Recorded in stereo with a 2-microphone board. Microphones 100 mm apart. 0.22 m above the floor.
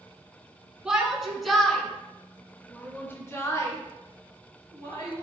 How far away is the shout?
About 2.5 m.